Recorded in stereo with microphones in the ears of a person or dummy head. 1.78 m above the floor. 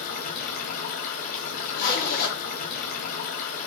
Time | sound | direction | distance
0.0 | running water | 55° left (ahead or behind) | 2.5 m
1.7 | a zipper | 60° left (ahead or behind) | 2.5 m